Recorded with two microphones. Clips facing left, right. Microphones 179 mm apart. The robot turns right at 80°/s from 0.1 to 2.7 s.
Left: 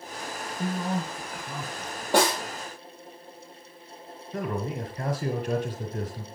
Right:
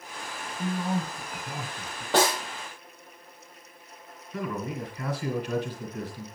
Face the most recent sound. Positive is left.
turn(degrees=50)  # may be behind; listen again after turning